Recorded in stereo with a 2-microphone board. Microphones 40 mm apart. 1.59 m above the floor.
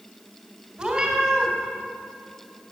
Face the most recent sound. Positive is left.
turn(degrees=-15)  # may be behind; listen again after turning